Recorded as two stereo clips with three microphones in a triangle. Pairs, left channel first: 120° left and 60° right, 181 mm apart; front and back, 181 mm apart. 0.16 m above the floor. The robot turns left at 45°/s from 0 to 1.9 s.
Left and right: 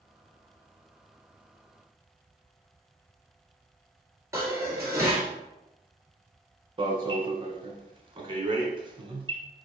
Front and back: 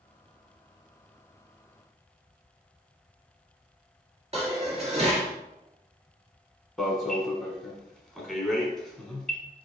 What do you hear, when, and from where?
4.3 s dishes clattering: 130° right, 2 m
6.8 s an alarm: 85° right, 0.9 m